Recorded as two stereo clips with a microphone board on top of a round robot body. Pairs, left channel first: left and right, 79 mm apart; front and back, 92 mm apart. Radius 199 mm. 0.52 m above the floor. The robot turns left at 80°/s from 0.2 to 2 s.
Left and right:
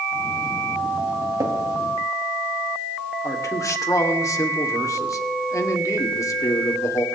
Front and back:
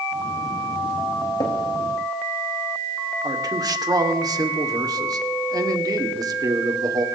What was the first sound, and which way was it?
Tapping, 45° right.